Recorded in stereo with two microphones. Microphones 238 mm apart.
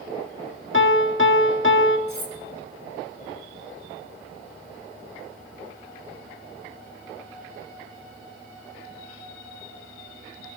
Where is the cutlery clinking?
65° left (ahead or behind), 2 m.